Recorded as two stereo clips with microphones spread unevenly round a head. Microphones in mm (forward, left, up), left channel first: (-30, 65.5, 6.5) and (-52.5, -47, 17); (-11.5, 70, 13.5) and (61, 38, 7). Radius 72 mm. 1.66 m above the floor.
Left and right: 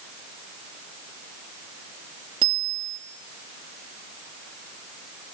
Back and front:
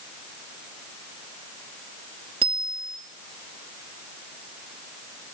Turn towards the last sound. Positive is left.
turn(degrees=-45)